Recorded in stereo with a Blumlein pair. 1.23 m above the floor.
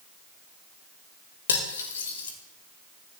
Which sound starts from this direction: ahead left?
Cutlery clinking, at 1.5 s.